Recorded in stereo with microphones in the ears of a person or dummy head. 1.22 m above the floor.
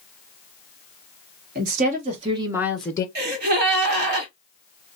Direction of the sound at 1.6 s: 50° right (ahead or behind).